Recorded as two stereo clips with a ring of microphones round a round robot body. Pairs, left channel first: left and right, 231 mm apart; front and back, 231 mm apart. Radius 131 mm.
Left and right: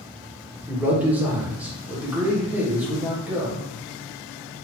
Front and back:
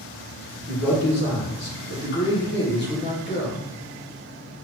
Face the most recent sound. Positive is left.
turn(degrees=-10)